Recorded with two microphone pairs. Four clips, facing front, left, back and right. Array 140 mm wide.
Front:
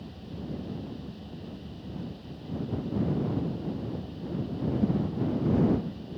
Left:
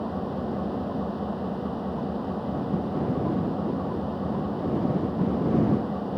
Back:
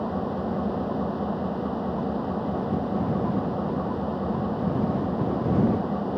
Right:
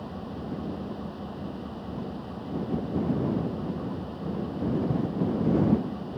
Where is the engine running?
160° left.